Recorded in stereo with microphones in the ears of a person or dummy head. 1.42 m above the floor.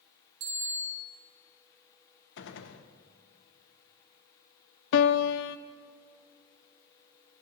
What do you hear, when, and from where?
0.4 s a bicycle bell: 70° right (ahead or behind), 2.5 m
2.4 s a gunshot: 80° left, 1.0 m
4.9 s a piano: 75° left (ahead or behind), 0.6 m